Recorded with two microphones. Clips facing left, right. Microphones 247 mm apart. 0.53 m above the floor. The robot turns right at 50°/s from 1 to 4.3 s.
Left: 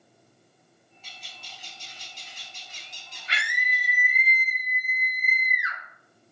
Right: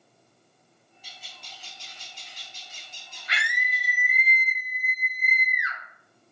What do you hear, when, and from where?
1.0 s a bird: 15° right, 0.8 m; by 4.3 s 150° left, 0.8 m
3.3 s a scream: 50° left, 0.7 m; by 5.8 s 100° left, 0.7 m